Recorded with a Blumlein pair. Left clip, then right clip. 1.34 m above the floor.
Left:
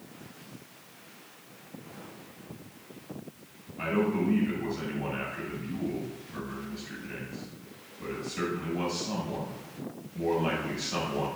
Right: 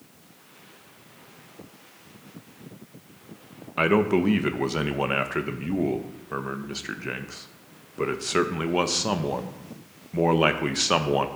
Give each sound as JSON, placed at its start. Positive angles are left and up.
{"t": 3.8, "sound": "a man speaking", "azimuth_deg": -45, "distance_m": 0.7}